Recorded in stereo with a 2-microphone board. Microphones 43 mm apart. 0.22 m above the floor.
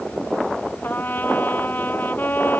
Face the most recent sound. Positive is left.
turn(degrees=50)  # may be behind; listen again after turning